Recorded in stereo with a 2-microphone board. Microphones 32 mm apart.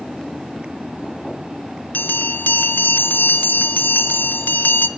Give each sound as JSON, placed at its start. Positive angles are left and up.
{"t": 1.9, "sound": "a bell", "side_deg": 85, "distance_m": 0.8}